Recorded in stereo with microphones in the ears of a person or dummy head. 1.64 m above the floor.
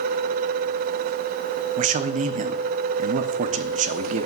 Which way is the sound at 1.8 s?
45° right (ahead or behind).